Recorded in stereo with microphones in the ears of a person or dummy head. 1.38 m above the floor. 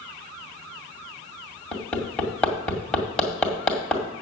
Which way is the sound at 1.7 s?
5° left (ahead or behind).